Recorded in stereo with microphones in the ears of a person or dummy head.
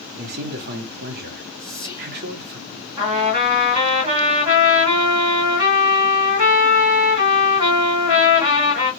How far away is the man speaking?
About 0.8 m.